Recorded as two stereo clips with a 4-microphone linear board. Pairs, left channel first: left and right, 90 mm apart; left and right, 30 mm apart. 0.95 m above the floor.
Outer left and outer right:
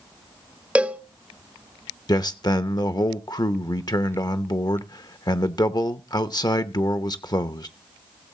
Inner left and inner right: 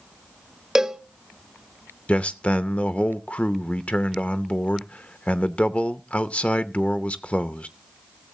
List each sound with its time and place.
0.8 s a cowbell: 15° right (ahead or behind), 0.6 m
2.1 s a man speaking: 50° left (ahead or behind), 0.6 m